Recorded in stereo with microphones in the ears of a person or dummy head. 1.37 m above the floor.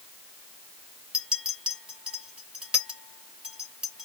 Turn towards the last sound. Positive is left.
turn(degrees=0)  # may be behind; listen again after turning